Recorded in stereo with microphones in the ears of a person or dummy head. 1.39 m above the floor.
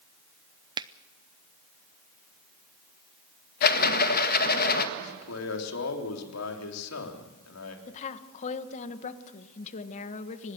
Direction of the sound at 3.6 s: 50° left (ahead or behind).